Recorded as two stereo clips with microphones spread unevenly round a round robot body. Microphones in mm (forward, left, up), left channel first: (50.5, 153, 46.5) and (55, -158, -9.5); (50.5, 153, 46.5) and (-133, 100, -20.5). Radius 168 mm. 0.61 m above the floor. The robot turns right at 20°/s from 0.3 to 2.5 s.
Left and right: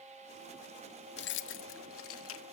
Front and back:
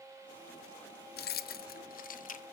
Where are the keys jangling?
45° left, 0.6 m; by 2.4 s 70° left, 0.6 m.